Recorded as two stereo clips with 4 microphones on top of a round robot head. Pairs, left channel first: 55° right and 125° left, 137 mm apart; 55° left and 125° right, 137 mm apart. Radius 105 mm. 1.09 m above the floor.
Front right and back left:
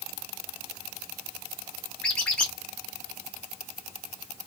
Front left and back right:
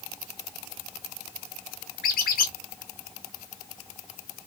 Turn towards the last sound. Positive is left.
turn(degrees=30)